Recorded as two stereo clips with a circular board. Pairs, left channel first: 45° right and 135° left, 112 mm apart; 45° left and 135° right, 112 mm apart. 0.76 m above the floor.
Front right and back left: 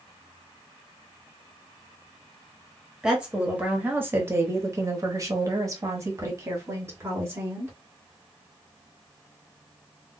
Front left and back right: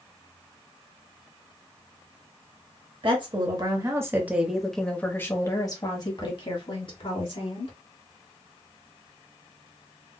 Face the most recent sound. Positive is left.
turn(degrees=70)